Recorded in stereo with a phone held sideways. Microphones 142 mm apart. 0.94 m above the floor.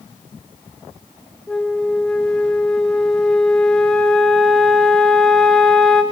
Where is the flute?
Centre (ahead or behind), 1.6 m.